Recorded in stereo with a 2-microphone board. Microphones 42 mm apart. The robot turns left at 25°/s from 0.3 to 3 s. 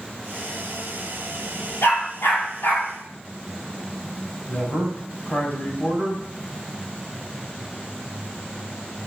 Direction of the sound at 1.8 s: 85° left.